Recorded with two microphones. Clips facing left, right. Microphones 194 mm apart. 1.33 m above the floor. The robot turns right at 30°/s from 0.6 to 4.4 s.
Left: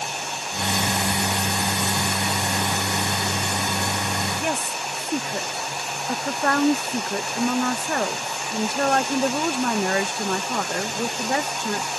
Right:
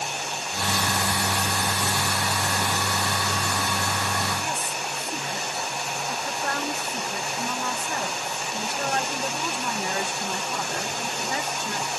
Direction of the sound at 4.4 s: 65° left (ahead or behind).